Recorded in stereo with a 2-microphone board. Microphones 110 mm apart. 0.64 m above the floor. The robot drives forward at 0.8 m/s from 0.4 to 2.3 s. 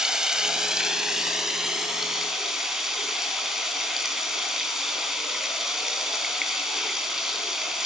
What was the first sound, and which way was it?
Running water, 5° right (ahead or behind).